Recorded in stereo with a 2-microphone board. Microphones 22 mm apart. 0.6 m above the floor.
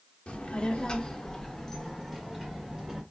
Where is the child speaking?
55° left (ahead or behind), 0.8 m; by 3.0 s 10° right (ahead or behind), 1.5 m.